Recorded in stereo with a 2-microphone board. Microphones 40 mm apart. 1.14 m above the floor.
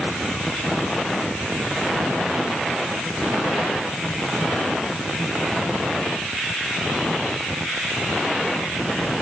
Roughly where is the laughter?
I don't hear laughter.